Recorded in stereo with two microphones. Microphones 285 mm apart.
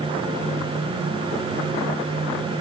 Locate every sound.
Only background noise.